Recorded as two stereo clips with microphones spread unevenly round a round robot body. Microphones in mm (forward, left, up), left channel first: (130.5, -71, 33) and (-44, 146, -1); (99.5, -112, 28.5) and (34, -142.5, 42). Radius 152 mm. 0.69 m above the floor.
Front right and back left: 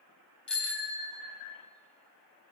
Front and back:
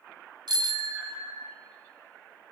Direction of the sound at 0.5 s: 140° right.